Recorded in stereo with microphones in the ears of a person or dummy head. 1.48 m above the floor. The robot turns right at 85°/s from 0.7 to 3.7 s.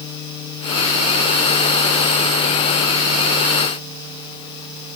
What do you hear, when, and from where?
Only background noise.